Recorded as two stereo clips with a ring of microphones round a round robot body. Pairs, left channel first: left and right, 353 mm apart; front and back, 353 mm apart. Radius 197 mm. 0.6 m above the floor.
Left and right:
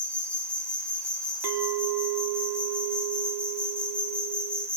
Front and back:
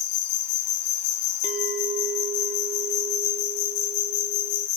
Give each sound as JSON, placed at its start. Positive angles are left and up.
{"t": 0.0, "sound": "an insect", "azimuth_deg": 5, "distance_m": 1.6}
{"t": 1.4, "sound": "a clink", "azimuth_deg": -110, "distance_m": 1.2}